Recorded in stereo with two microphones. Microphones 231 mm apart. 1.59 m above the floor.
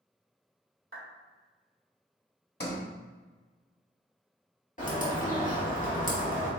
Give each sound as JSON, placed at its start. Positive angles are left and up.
{"t": 0.9, "sound": "a clap", "side_deg": -65, "distance_m": 1.5}
{"t": 2.6, "sound": "a sliding door", "side_deg": 45, "distance_m": 0.9}
{"t": 4.8, "sound": "a bird", "side_deg": 35, "distance_m": 1.2}